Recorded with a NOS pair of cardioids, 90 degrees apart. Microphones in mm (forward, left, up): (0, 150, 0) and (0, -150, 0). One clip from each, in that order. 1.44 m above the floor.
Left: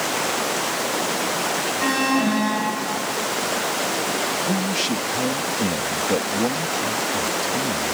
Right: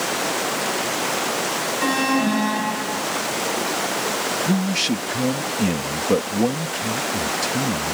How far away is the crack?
I don't hear a crack.